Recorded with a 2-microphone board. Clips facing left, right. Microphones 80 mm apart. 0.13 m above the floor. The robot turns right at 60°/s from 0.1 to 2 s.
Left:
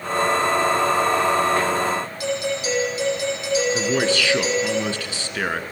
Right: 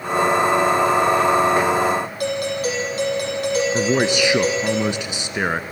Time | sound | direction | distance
2.2 | a doorbell | 50° right (ahead or behind) | 6 m
3.7 | a man speaking | 20° right (ahead or behind) | 1.2 m